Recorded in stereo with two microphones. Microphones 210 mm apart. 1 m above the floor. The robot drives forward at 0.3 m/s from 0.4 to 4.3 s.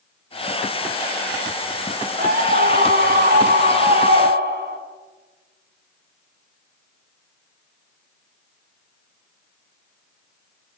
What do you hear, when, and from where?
2.2 s a scream: 50° right (ahead or behind), 4 m; by 4.8 s 55° right (ahead or behind), 4 m